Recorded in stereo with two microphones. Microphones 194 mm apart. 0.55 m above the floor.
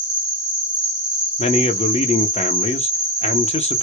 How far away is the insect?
About 1.4 m.